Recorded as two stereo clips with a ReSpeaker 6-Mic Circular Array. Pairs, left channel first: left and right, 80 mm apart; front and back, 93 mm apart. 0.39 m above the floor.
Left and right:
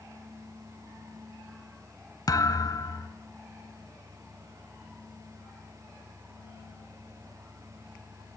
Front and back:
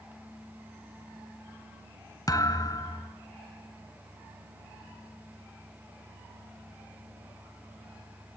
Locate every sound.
2.3 s a thud: 50° left, 1.4 m